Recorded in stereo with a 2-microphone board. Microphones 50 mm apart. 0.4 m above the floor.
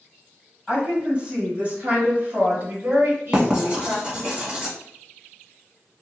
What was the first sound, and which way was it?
A woman speaking, 20° right (ahead or behind).